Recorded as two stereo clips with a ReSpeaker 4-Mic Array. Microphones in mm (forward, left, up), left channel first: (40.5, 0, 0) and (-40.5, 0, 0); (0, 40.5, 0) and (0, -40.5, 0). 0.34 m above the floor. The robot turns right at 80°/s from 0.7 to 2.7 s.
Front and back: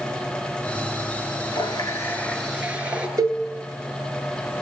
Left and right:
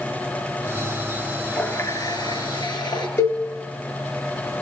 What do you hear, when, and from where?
1.5 s a running tap: 15° left, 3.5 m; by 3.1 s 105° left, 3.5 m
3.2 s a cowbell: 135° left, 3.5 m